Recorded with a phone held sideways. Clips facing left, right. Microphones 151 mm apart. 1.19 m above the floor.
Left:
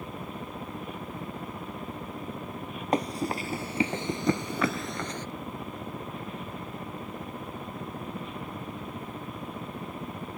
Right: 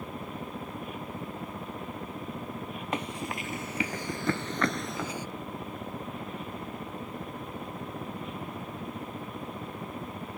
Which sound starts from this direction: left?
Running footsteps, at 2.9 s.